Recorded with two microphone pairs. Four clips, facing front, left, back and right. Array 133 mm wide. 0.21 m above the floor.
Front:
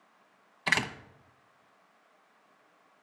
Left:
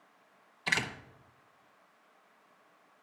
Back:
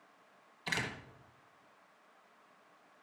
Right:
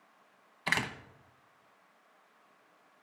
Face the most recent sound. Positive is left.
turn(degrees=-20)